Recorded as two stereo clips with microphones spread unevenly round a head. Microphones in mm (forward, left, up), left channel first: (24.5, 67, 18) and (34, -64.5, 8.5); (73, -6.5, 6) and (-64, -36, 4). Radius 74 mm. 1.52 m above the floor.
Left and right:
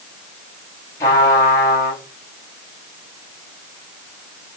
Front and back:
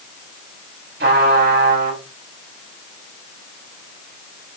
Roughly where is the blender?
I don't hear a blender.